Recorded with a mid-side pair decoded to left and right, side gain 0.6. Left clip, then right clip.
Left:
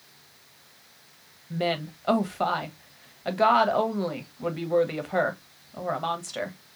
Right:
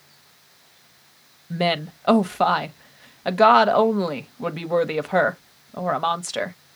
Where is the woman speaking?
35° right, 0.9 m.